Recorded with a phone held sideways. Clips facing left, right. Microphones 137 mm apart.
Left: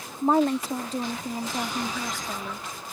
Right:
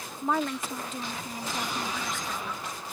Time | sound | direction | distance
0.2 | a woman speaking | 35° left (ahead or behind) | ?